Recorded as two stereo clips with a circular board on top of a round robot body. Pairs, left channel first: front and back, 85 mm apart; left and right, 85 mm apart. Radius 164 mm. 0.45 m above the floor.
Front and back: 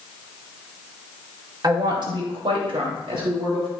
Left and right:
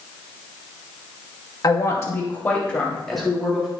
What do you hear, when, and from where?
1.6 s a woman speaking: 135° left, 2 m; by 3.7 s 175° right, 3 m